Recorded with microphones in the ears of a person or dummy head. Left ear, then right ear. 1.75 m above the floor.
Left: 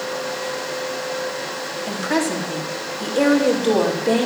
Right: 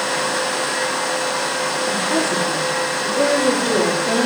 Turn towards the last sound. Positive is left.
turn(degrees=85)